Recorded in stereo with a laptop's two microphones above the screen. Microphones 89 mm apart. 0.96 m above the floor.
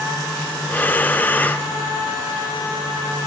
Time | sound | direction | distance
0.7 | breathing | 20° left (ahead or behind) | 0.6 m